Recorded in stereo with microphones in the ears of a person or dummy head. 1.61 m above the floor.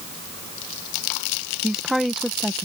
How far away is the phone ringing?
No phone ringing in this recording.